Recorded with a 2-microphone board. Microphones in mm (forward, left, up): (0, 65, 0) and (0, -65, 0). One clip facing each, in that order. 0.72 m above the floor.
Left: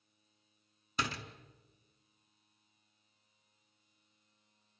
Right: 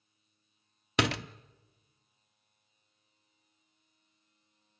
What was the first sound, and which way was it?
A door slam, 80° right.